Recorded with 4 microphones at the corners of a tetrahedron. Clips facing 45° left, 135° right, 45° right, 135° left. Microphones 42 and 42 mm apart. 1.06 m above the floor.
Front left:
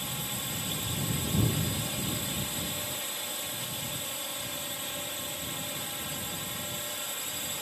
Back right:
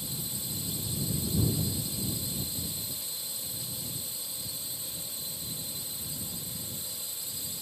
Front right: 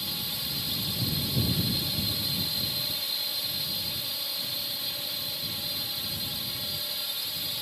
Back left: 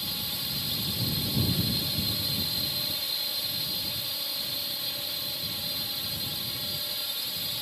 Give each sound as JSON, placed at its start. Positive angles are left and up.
{"t": 0.0, "sound": "a drone", "azimuth_deg": 40}